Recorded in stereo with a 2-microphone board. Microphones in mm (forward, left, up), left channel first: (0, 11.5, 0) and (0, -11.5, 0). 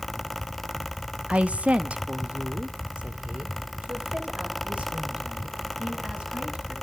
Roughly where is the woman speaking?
Right.